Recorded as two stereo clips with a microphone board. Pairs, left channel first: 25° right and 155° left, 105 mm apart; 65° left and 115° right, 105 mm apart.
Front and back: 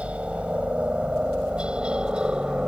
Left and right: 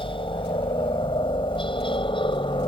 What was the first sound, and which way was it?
A helicopter, 80° left.